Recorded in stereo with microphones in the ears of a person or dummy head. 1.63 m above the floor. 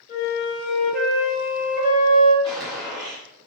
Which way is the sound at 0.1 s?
50° left (ahead or behind).